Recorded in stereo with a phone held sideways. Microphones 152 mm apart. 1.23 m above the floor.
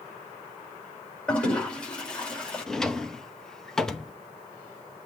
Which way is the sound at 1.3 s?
5° left (ahead or behind).